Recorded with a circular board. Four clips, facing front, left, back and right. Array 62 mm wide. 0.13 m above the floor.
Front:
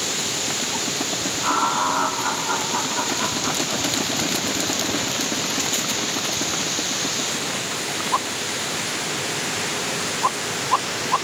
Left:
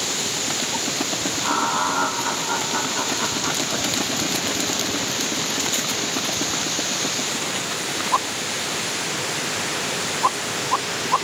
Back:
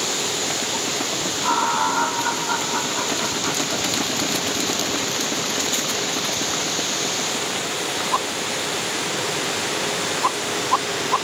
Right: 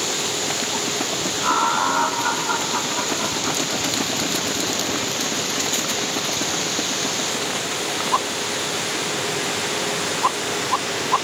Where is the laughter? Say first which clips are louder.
Right 3 dB, back 1 dB; 90° right, 1.6 m; by 3.9 s 170° left, 1.6 m.